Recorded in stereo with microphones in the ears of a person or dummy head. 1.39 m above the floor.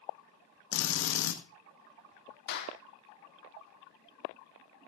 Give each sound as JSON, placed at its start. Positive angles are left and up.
{"t": 0.7, "sound": "a drill", "side_deg": 60, "distance_m": 1.8}
{"t": 2.5, "sound": "a clap", "side_deg": 65, "distance_m": 2.5}